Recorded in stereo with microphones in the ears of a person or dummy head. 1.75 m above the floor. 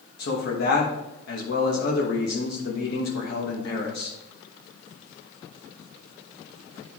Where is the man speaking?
65° left (ahead or behind), 1.2 m.